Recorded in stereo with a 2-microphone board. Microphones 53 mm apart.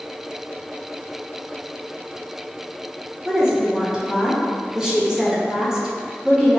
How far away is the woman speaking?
About 0.9 m.